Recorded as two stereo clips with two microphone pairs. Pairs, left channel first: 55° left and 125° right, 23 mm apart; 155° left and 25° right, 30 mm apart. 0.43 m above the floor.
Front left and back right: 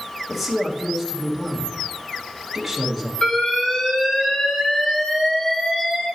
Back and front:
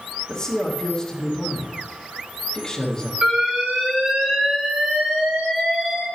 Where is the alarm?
15° left, 2.5 m.